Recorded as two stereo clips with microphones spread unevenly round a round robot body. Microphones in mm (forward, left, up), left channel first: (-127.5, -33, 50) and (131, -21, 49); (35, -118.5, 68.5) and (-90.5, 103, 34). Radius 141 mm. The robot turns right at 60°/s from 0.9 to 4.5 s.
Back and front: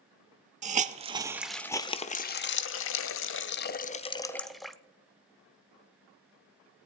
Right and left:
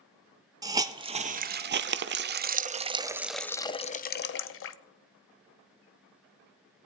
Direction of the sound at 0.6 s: 55° left.